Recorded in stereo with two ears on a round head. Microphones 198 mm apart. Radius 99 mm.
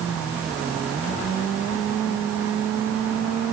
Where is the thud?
No thud in this recording.